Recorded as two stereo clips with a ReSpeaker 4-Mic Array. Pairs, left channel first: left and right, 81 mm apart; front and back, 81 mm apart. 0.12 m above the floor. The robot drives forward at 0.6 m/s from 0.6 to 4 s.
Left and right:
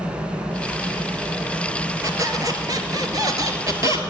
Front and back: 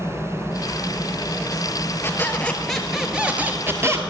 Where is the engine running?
55° right, 5.5 m; by 4.1 s 75° right, 4.5 m.